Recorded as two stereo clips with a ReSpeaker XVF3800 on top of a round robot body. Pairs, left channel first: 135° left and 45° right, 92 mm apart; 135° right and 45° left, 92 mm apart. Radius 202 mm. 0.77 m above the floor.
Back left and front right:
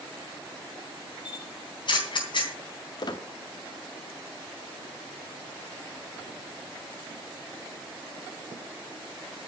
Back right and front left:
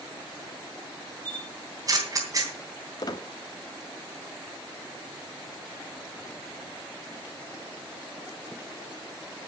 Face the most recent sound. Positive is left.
turn(degrees=180)